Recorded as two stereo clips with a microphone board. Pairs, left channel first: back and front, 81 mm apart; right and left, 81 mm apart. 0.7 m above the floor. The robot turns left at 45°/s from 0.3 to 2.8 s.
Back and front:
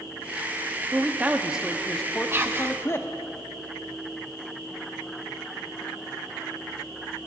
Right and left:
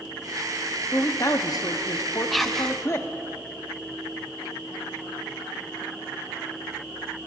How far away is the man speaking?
About 0.9 m.